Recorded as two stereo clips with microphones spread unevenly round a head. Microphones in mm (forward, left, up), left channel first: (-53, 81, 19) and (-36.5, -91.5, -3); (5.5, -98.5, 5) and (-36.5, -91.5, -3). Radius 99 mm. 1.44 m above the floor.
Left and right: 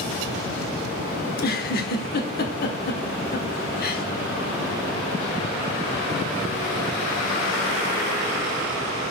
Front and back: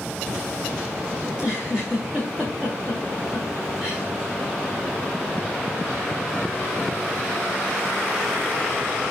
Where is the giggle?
85° left, 1.6 m.